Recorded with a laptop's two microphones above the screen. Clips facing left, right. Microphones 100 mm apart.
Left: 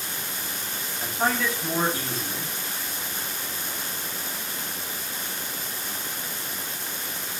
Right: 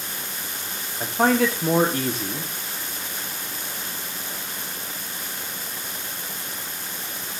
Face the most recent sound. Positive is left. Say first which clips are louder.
# right 6 dB
turn(degrees=-65)  # may be behind; listen again after turning